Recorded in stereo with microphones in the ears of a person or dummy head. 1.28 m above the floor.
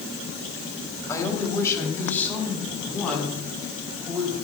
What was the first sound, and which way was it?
A man speaking, 15° left (ahead or behind).